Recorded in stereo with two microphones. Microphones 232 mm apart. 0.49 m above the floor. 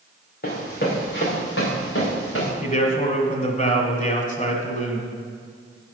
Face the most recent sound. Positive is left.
turn(degrees=35)  # may be behind; listen again after turning